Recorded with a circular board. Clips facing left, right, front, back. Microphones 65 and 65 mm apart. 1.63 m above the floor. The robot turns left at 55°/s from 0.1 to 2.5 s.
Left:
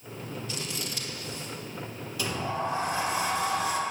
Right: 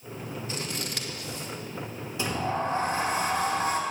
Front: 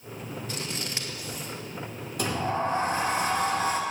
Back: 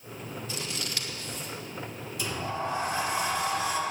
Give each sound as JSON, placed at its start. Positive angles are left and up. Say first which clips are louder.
{"t": 0.5, "sound": "scissors", "louder": "right 2 dB, front 1 dB", "azimuth_deg": -35, "distance_m": 1.8}
{"t": 2.2, "sound": "a sliding door", "louder": "right 2 dB, front 5 dB", "azimuth_deg": -25, "distance_m": 2.0}